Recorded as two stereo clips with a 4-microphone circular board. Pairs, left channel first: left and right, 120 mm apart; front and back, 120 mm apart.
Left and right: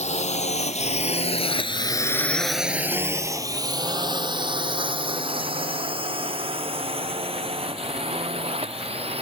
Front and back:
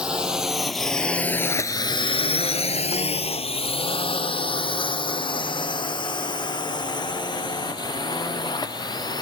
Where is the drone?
100° left; by 9.2 s 55° right.